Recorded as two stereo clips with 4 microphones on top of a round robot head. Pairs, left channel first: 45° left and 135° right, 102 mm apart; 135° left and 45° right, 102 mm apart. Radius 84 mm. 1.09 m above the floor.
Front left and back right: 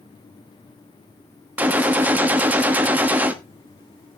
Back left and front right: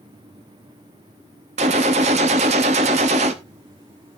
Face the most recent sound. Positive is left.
turn(degrees=-60)